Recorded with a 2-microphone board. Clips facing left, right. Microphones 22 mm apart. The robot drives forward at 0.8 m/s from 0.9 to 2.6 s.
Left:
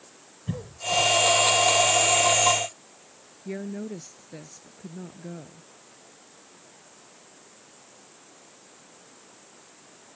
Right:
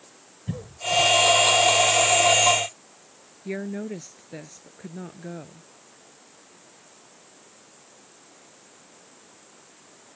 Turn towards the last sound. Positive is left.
turn(degrees=-35)  # may be behind; listen again after turning